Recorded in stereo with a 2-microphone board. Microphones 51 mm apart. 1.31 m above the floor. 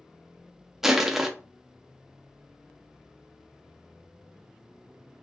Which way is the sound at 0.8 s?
10° right (ahead or behind).